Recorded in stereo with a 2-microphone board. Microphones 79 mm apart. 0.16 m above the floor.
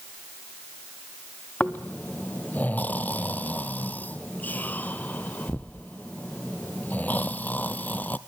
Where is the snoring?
20° left (ahead or behind), 0.7 m.